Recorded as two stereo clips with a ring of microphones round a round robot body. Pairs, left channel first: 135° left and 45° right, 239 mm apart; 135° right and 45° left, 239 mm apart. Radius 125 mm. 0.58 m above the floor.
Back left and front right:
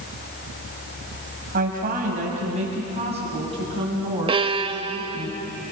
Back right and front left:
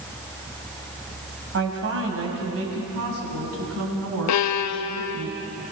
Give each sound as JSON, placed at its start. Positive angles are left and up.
{"t": 1.5, "sound": "a woman speaking", "azimuth_deg": 5, "distance_m": 4.5}
{"t": 4.3, "sound": "a violin", "azimuth_deg": -115, "distance_m": 0.8}